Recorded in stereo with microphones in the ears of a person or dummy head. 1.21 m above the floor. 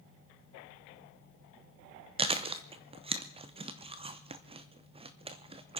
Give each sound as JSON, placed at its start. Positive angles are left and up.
{"t": 2.2, "sound": "chewing", "side_deg": -30, "distance_m": 0.8}